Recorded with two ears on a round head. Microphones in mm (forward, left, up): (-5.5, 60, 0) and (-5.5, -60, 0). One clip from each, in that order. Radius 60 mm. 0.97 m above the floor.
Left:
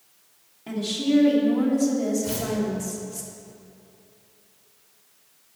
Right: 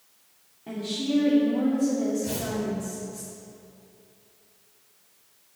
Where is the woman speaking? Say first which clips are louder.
Left 4 dB; 75° left (ahead or behind), 3 m.